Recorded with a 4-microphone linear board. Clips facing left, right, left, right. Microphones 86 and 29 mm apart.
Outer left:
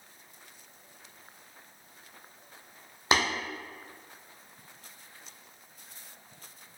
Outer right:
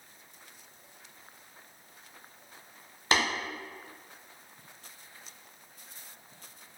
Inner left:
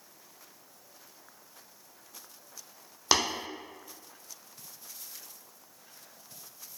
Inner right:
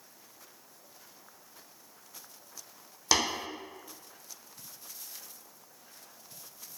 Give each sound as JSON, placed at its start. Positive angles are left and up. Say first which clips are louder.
{"t": 3.1, "sound": "tapping", "louder": "outer left 1 dB, inner left 1 dB", "side_deg": 20, "distance_m": 1.0}